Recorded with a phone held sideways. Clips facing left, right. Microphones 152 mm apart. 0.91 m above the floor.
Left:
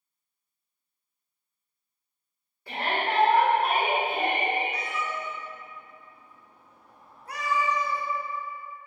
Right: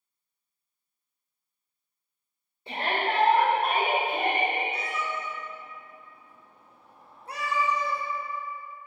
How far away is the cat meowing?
About 0.6 m.